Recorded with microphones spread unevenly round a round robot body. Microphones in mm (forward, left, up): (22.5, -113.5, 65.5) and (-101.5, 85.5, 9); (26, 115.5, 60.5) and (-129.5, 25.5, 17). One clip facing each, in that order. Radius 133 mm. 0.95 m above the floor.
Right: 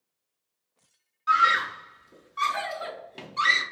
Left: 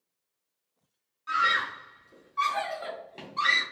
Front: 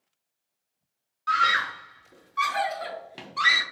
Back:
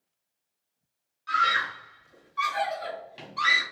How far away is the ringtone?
No ringtone in this recording.